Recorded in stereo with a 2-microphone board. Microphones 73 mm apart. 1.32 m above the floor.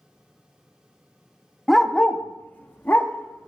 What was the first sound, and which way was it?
A dog barking, centre (ahead or behind).